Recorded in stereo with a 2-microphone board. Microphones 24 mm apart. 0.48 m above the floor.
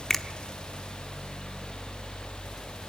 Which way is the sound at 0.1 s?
15° left (ahead or behind).